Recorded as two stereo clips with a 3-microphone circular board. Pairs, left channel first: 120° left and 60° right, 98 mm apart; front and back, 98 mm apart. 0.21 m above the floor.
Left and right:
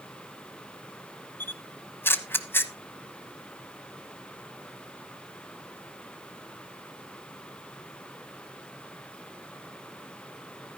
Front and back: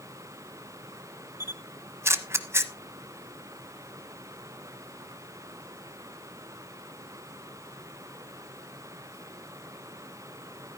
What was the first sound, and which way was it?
A camera shutter, 160° left.